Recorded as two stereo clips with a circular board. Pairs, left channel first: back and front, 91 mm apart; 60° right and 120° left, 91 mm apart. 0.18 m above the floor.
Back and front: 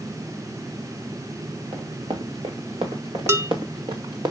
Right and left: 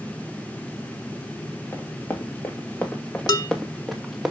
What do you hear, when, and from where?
1.7 s running footsteps: straight ahead, 2.5 m; by 4.3 s 35° left, 2 m
3.3 s dishes clattering: 50° right, 1.2 m